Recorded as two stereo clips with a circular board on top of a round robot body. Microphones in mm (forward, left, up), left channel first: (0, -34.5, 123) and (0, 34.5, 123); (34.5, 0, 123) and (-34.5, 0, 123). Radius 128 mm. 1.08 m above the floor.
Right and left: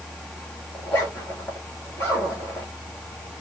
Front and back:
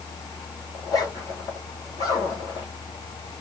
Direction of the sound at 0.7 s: 30° right.